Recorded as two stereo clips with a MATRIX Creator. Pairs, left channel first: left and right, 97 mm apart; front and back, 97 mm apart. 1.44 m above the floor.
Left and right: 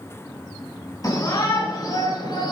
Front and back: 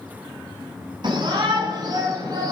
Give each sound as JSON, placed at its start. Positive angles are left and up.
{"t": 1.0, "sound": "a shout", "azimuth_deg": 140, "distance_m": 5.0}